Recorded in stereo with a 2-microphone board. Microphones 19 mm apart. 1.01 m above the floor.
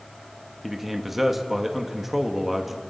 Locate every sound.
0.6 s a man speaking: 10° right (ahead or behind), 1.7 m